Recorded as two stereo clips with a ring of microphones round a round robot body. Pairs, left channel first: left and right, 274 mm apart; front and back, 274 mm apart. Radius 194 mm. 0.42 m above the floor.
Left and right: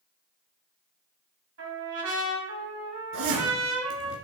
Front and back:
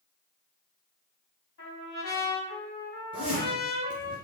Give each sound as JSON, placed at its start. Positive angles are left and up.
{"t": 1.6, "sound": "a trumpet", "azimuth_deg": -55, "distance_m": 2.5}
{"t": 3.1, "sound": "a zipper", "azimuth_deg": -105, "distance_m": 2.0}